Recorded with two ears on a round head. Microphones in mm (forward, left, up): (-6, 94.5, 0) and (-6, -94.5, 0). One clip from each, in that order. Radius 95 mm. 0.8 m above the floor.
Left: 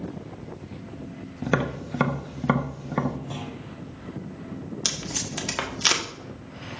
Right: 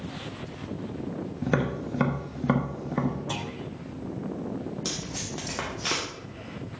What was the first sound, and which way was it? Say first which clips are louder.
Tapping: left 2 dB; 25° left (ahead or behind).